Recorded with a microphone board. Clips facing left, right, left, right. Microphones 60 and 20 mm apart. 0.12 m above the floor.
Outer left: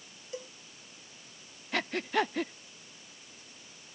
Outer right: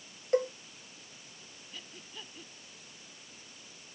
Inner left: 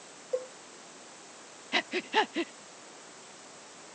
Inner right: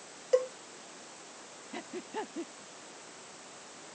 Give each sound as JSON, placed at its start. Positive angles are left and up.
{"t": 0.3, "sound": "a cowbell", "side_deg": -55}
{"t": 1.7, "sound": "breathing", "side_deg": 80}